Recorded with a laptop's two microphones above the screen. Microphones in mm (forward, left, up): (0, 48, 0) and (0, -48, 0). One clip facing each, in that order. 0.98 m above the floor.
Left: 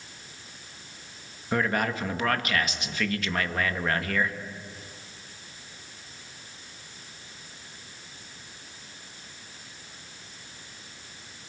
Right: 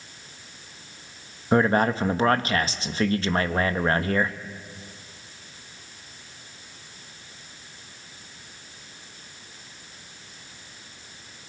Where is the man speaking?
35° right (ahead or behind), 1.3 m.